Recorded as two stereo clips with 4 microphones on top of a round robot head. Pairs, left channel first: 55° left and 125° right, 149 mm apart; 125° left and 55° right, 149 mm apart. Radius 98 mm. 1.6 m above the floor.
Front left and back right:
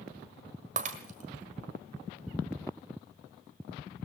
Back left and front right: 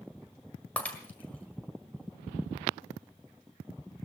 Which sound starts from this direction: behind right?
Breaking glass, at 0.8 s.